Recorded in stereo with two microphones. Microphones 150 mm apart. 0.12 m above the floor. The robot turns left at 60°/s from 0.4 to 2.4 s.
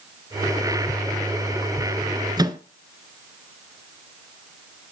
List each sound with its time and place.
2.4 s a microwave: 30° right (ahead or behind), 1.0 m; by 2.6 s 25° right (ahead or behind), 1.0 m